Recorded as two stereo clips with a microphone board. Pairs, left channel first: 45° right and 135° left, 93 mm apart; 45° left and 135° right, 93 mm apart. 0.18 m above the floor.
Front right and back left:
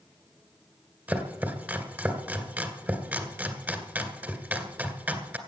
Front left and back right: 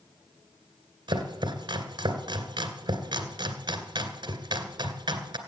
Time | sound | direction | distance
1.1 | chopping | 160° right | 2 m